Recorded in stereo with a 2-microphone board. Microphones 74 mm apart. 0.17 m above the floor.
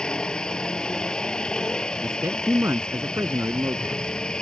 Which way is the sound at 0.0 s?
10° left (ahead or behind).